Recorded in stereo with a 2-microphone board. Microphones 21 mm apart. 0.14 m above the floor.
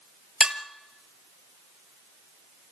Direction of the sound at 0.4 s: 45° right (ahead or behind).